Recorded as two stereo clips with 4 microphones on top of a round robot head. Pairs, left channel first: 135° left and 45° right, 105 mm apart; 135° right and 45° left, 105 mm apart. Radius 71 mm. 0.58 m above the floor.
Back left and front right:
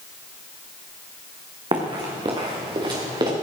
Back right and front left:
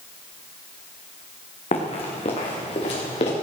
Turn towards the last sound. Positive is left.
turn(degrees=-95)